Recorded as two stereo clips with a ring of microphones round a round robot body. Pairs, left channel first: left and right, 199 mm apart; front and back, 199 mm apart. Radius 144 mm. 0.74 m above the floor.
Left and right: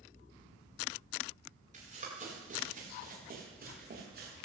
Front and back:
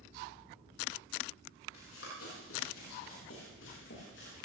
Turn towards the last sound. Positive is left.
turn(degrees=-55)